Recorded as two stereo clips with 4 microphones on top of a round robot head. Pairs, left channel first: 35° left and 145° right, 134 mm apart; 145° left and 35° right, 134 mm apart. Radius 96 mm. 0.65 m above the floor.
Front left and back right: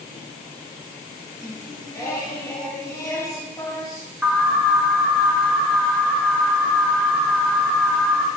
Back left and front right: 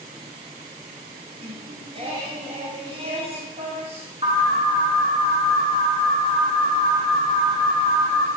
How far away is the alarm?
About 2 m.